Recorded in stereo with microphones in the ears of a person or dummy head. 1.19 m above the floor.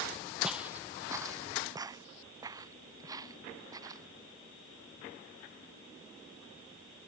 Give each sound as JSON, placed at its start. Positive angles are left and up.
{"t": 0.4, "sound": "footsteps", "side_deg": 0}